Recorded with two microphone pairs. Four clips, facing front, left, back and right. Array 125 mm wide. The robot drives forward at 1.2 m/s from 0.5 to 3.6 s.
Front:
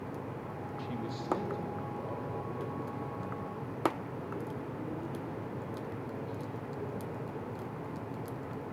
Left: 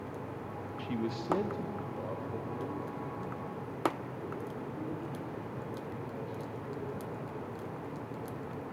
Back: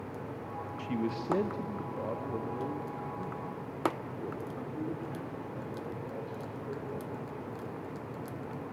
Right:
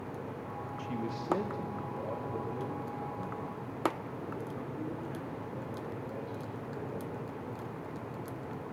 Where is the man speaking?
130° left, 0.7 m; by 7.1 s 175° left, 3.5 m.